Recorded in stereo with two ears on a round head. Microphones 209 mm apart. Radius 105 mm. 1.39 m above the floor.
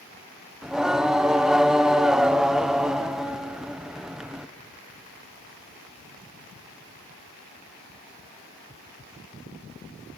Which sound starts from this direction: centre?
Singing, at 0.6 s.